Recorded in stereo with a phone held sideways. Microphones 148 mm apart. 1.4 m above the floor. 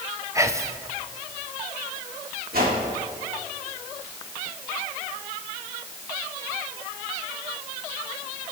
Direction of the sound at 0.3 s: 20° right (ahead or behind).